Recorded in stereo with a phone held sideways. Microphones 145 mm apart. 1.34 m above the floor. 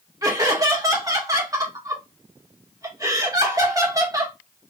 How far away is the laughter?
About 1.9 m.